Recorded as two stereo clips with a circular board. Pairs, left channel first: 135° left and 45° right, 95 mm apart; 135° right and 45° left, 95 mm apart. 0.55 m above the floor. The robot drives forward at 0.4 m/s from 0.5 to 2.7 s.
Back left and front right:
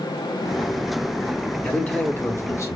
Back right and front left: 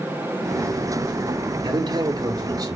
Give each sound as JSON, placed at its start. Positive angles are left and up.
{"t": 1.6, "sound": "a man speaking", "azimuth_deg": 60, "distance_m": 1.2}